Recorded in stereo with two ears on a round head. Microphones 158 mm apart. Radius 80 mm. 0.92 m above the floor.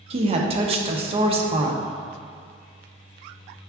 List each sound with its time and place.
0.1 s a woman speaking: 35° right (ahead or behind), 0.6 m